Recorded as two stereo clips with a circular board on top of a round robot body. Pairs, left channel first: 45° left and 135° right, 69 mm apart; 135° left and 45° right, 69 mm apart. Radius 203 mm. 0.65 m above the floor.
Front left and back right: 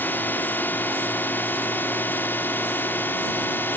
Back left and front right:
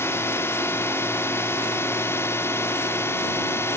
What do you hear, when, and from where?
0.0 s a drone: 95° left